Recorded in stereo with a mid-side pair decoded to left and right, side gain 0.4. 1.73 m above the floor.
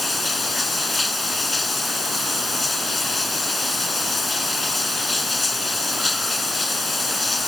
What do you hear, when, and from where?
0.0 s running water: 25° left